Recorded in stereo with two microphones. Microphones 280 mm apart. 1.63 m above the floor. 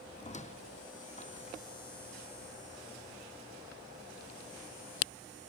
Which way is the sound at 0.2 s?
25° left (ahead or behind).